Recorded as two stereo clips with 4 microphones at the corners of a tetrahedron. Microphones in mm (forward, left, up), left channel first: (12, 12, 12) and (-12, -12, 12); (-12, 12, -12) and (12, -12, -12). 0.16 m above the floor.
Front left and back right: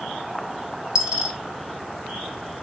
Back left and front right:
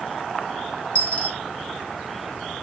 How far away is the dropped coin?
About 0.8 m.